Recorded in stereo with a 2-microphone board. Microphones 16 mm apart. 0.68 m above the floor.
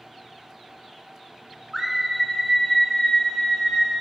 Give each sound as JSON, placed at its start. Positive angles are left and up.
{"t": 1.7, "sound": "a scream", "side_deg": -25, "distance_m": 0.8}